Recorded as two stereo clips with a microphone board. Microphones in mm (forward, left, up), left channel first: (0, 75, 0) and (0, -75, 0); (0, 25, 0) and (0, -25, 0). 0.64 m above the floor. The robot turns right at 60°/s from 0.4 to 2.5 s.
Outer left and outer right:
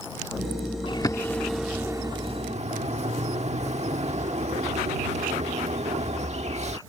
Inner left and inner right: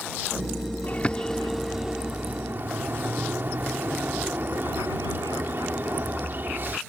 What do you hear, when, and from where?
0.9 s a bird: 35° left (ahead or behind); by 6.8 s 45° right (ahead or behind)